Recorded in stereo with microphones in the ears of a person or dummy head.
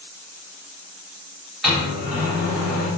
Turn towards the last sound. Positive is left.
turn(degrees=0)  # may be behind; listen again after turning